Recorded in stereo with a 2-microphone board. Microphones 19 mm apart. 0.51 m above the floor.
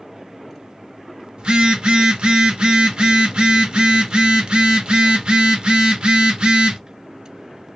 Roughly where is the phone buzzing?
Right.